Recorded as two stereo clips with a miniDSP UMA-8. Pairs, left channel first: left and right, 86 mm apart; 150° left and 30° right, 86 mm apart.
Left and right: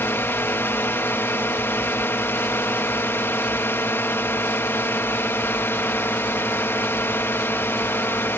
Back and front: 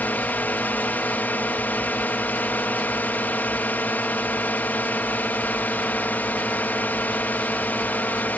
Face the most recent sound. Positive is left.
turn(degrees=110)